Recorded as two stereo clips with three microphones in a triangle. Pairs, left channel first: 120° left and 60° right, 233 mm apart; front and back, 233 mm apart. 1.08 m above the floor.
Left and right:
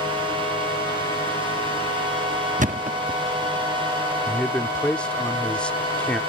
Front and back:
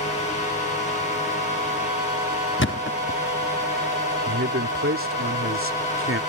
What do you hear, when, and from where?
2.6 s a thud: 10° right
4.3 s a man speaking: 155° right